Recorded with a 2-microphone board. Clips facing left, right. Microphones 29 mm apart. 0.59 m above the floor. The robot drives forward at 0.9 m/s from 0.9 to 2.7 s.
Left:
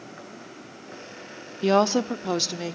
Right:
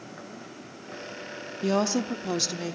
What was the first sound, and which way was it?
A woman speaking, 30° left (ahead or behind).